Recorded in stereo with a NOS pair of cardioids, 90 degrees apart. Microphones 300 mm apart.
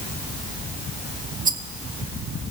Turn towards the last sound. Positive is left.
turn(degrees=-25)